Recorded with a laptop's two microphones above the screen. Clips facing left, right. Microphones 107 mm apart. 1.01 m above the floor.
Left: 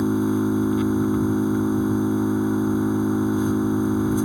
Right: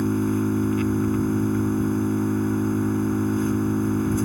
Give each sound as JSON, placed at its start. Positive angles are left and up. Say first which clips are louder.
{"t": 0.0, "sound": "an engine running", "louder": "left 2 dB", "side_deg": 15}